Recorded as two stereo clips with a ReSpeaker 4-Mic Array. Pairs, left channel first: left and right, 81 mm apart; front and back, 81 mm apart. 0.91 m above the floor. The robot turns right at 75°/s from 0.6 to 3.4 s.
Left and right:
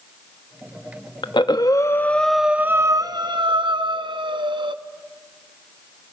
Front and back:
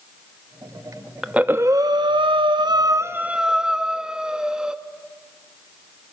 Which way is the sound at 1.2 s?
100° left.